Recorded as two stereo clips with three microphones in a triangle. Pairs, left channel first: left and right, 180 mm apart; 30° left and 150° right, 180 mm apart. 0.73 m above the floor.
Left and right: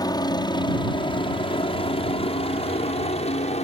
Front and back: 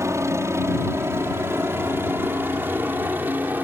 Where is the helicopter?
145° left; by 3.6 s 130° left.